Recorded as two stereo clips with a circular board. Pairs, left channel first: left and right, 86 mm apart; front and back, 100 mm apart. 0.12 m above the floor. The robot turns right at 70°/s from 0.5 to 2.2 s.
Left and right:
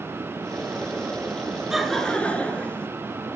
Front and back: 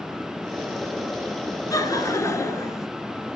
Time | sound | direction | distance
1.7 | laughter | 10° right | 1.7 m